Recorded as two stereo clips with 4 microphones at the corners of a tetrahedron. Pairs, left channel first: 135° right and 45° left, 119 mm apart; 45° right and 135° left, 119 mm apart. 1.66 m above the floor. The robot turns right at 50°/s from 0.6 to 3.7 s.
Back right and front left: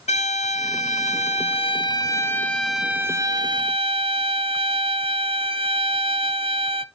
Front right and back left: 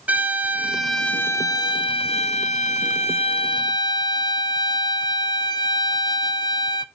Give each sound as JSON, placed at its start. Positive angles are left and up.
{"t": 0.1, "sound": "a violin", "azimuth_deg": -150, "distance_m": 0.6}